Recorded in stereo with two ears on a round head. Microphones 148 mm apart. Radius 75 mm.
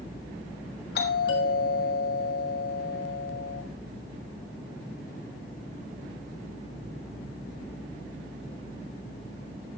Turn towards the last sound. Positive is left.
turn(degrees=65)  # may be behind; listen again after turning